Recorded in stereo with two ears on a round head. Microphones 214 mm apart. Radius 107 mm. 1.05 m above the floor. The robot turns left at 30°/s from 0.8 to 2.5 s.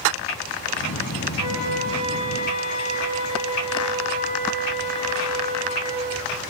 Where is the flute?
80° left, 5 m; by 6.0 s 45° left, 5 m.